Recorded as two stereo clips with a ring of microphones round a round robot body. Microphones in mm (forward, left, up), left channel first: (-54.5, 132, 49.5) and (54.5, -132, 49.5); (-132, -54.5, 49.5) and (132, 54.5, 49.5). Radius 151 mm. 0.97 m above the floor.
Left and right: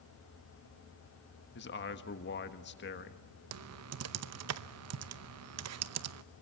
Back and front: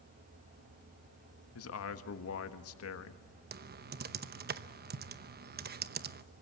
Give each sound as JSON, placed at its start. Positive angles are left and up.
{"t": 1.6, "sound": "a man speaking", "azimuth_deg": 165, "distance_m": 1.5}
{"t": 3.5, "sound": "typing on a keyboard", "azimuth_deg": -35, "distance_m": 0.8}